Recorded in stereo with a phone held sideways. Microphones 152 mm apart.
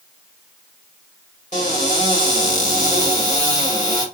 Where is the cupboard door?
55° left (ahead or behind), 1.6 m.